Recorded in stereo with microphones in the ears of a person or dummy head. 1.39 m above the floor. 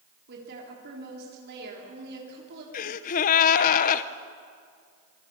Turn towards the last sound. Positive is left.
turn(degrees=45)  # may be behind; listen again after turning